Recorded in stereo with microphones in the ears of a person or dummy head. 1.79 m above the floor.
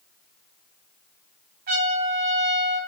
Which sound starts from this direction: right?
A trumpet, at 1.7 s.